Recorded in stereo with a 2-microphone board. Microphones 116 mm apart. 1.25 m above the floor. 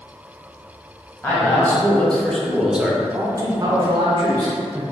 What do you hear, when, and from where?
1.2 s a man speaking: 15° left (ahead or behind), 1.3 m; by 4.8 s 40° right (ahead or behind), 1.1 m